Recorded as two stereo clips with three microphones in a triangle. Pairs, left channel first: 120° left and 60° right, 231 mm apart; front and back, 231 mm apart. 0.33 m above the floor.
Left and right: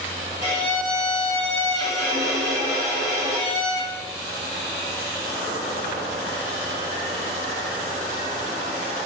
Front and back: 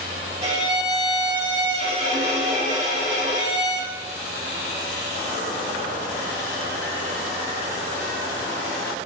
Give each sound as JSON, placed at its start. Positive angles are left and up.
{"t": 0.4, "sound": "a violin", "azimuth_deg": -130, "distance_m": 1.3}